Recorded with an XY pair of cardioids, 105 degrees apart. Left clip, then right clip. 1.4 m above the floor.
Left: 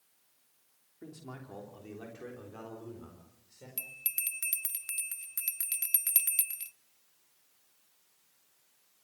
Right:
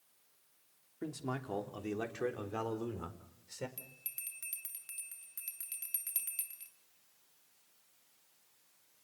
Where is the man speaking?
55° right, 3 m; by 3.7 s 80° right, 4.5 m.